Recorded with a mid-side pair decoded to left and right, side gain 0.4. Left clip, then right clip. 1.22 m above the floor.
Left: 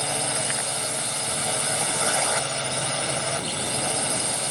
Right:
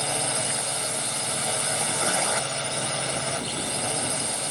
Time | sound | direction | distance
0.0 | a drone | straight ahead | ?